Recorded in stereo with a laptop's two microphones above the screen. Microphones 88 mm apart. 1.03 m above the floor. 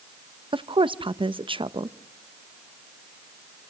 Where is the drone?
I don't hear a drone.